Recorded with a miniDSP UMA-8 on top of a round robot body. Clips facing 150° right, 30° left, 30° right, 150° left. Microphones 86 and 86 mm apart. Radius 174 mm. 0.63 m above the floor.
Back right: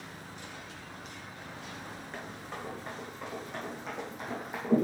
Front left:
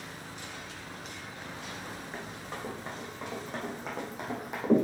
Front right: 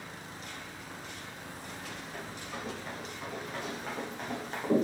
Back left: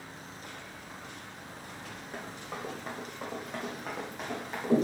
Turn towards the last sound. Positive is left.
turn(degrees=50)